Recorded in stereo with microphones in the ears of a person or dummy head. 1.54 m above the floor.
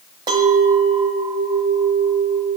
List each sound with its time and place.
0.3 s a clink: 25° right (ahead or behind), 1.1 m